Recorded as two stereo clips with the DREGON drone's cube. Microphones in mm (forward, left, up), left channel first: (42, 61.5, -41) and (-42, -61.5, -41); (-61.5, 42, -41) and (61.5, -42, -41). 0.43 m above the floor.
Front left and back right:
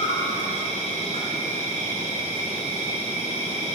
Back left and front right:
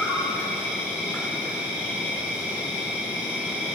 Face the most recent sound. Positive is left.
turn(degrees=50)